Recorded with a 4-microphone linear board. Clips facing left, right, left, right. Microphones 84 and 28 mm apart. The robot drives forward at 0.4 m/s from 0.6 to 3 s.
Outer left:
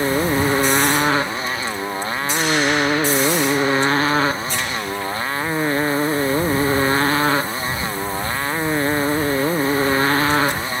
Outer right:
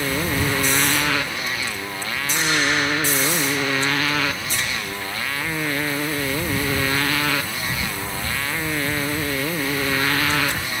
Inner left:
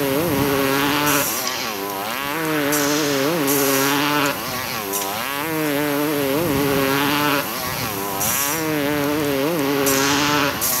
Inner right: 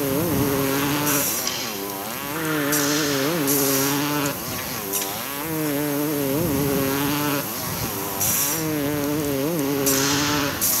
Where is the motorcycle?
25° left (ahead or behind); by 10.8 s 30° left (ahead or behind).